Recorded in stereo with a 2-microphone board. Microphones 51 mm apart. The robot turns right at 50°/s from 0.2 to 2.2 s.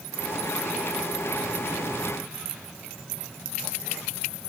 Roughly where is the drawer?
I don't hear a drawer.